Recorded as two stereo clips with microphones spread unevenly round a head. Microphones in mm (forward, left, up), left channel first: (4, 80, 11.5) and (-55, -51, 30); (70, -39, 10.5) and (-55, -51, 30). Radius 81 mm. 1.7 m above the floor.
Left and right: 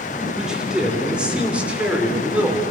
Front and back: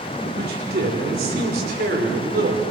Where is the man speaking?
160° left, 4 m; by 2.6 s 170° left, 5 m.